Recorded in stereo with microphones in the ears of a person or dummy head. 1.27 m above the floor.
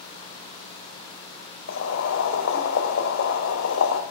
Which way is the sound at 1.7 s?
85° left.